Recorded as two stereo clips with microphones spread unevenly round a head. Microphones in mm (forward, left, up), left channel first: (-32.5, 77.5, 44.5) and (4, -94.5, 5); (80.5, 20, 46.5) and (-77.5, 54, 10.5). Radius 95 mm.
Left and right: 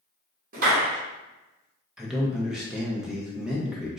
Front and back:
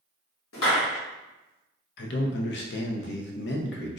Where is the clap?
30° right, 1.3 m.